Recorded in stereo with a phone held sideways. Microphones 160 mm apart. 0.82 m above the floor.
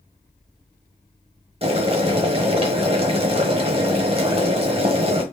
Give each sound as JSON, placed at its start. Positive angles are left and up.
{"t": 1.6, "sound": "boiling", "side_deg": -35, "distance_m": 1.0}